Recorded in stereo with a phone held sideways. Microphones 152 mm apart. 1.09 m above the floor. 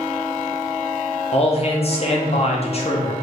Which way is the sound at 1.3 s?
40° left (ahead or behind).